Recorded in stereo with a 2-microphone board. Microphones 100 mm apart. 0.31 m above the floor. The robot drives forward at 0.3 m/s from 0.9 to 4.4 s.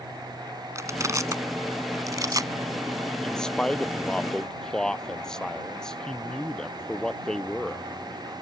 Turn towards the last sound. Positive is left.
turn(degrees=5)  # may be behind; listen again after turning